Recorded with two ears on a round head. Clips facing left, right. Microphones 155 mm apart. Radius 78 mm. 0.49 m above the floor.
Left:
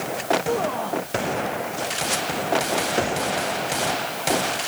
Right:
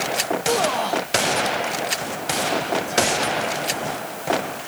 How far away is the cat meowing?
I don't hear a cat meowing.